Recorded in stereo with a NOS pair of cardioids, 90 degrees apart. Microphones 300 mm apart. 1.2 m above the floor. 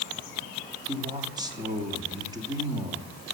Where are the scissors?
No scissors in this recording.